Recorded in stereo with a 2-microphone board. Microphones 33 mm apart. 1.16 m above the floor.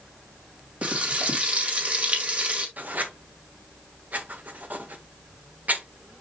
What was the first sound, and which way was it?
Frying, 50° right (ahead or behind).